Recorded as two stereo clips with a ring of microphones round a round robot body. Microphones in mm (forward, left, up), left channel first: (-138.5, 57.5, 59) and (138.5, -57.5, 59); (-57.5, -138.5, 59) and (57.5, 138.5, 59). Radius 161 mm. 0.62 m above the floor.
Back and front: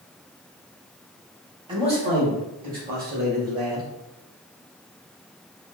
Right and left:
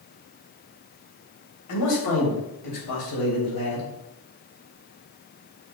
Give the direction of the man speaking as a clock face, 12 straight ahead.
3 o'clock.